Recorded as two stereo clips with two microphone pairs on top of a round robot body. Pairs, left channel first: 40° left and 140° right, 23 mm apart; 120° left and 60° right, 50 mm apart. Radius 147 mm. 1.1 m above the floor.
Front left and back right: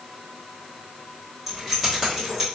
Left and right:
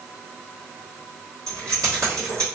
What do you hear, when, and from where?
1.5 s keys jangling: 65° right, 2 m